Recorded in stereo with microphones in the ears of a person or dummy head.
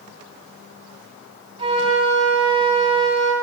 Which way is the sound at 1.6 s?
30° right (ahead or behind).